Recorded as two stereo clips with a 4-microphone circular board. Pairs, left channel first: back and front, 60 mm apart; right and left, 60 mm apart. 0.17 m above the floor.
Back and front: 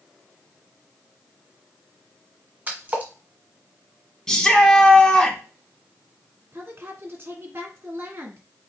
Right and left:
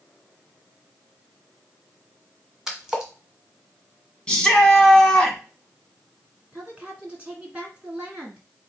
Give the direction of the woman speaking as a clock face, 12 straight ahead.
11 o'clock.